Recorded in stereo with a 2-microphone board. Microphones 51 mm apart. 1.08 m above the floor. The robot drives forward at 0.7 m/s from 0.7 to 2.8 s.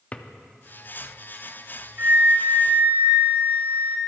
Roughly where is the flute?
Right.